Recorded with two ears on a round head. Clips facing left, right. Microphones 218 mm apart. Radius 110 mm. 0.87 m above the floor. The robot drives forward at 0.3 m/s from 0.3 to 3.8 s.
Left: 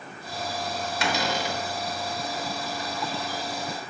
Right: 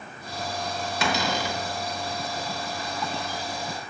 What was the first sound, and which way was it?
A cupboard door, 80° right.